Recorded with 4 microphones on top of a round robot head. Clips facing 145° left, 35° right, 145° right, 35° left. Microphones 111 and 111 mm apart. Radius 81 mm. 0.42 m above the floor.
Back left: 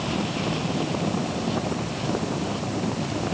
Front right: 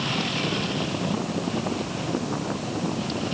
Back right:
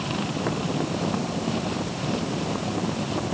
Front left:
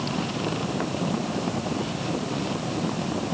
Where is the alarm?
No alarm in this recording.